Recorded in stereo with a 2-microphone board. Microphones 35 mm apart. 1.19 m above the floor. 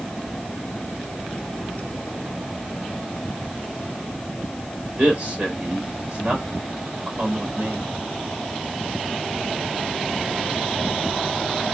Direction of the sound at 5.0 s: 35° right (ahead or behind).